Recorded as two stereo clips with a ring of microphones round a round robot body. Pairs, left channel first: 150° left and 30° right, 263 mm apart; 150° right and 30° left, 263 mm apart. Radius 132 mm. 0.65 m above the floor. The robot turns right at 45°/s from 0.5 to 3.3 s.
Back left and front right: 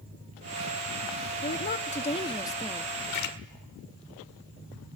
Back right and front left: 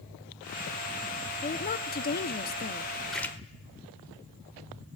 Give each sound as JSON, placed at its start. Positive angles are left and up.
{"t": 1.4, "sound": "a woman speaking", "azimuth_deg": 170, "distance_m": 0.7}
{"t": 3.1, "sound": "a splash", "azimuth_deg": 120, "distance_m": 1.7}